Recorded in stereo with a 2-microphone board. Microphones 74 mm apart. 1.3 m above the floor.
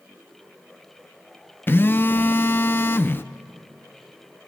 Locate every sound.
1.7 s a phone buzzing: 30° left (ahead or behind), 0.6 m